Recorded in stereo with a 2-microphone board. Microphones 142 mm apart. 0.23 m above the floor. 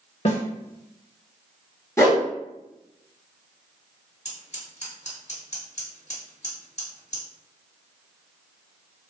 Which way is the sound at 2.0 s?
20° left (ahead or behind).